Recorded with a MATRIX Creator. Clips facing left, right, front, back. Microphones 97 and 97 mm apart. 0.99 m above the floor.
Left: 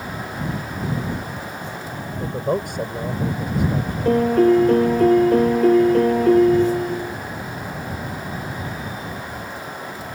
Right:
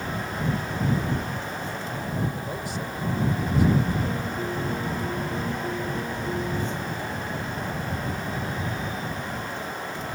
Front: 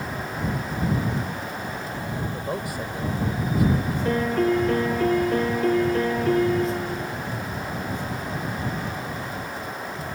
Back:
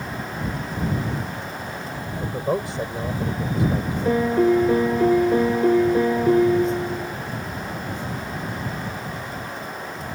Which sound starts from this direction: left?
A piano, at 4.0 s.